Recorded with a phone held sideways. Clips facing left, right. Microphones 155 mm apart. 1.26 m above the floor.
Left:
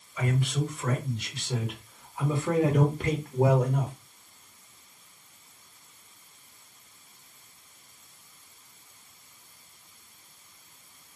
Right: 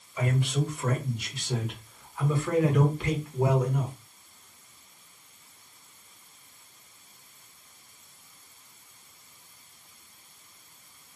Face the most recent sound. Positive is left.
turn(degrees=65)  # may be behind; listen again after turning